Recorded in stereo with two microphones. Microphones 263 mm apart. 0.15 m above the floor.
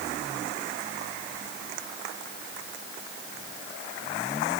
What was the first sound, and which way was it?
Only background noise.